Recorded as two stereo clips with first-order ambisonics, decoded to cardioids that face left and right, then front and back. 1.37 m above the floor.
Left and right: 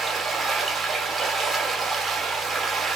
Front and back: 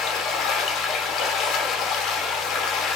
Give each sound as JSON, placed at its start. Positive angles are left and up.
{"t": 0.0, "sound": "running water", "azimuth_deg": -30, "distance_m": 0.9}